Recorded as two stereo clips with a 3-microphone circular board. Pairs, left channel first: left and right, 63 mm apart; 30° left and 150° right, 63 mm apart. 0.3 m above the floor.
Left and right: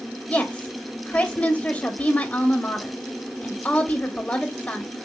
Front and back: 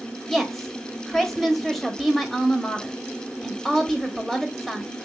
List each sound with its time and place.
0.3 s a woman speaking: 115° left, 0.9 m